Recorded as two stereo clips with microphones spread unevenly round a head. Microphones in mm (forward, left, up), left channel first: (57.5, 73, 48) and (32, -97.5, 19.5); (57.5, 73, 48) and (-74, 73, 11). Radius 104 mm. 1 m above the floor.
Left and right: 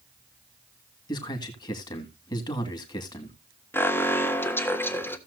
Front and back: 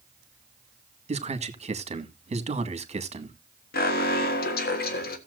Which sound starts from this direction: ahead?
An alarm, at 3.7 s.